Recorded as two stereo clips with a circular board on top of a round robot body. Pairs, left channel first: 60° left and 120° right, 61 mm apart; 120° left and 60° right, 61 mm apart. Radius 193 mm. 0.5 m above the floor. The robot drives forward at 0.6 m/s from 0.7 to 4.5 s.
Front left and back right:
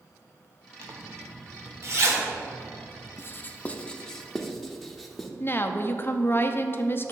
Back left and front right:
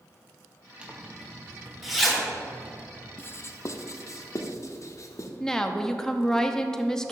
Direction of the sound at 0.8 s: 125° right.